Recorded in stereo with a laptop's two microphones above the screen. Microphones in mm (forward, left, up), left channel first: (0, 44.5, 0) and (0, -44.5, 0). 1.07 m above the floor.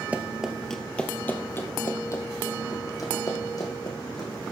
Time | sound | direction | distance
0.1 | running footsteps | 15° right (ahead or behind) | 1.2 m